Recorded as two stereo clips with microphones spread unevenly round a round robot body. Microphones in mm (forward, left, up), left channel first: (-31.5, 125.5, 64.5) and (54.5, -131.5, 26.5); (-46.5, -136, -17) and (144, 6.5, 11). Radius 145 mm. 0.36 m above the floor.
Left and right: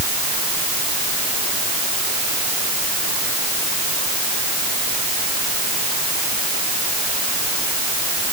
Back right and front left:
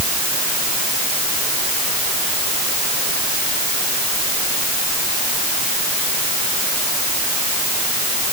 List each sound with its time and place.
Only background noise.